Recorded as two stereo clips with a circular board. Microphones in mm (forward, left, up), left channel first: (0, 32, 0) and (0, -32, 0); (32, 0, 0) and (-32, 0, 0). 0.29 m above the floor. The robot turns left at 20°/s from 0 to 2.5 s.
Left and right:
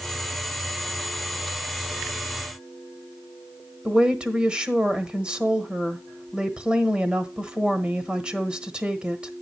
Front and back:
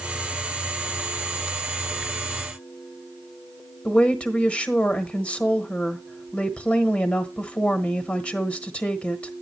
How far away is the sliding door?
No sliding door in this recording.